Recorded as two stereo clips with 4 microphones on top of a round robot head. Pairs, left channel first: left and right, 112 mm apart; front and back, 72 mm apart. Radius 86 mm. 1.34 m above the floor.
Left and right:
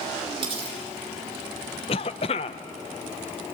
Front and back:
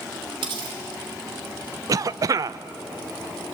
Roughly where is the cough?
Behind left.